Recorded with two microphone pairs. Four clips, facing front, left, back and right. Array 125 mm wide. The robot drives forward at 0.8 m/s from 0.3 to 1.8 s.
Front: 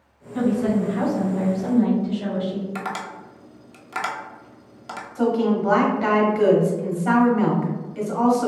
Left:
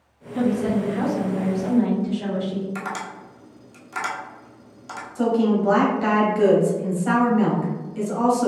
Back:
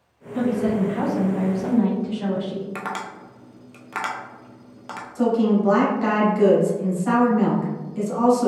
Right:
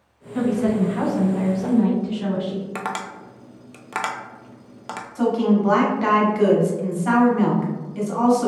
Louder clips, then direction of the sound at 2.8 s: Right 2 dB, even; 100° right.